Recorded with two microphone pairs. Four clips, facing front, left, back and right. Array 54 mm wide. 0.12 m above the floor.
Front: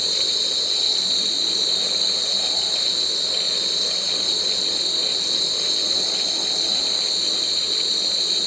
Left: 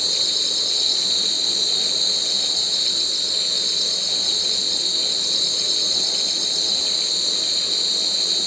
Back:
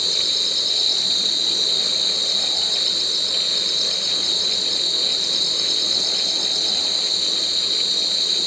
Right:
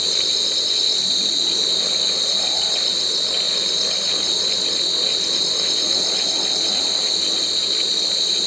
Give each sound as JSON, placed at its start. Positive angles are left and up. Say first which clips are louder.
{"t": 0.0, "sound": "an insect", "louder": "right 2 dB, back 1 dB", "azimuth_deg": -175, "distance_m": 0.7}